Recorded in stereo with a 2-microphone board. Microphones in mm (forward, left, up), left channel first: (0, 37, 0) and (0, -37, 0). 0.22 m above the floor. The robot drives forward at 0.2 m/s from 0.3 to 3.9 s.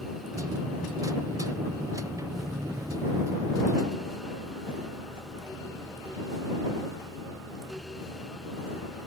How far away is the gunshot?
No gunshot in this recording.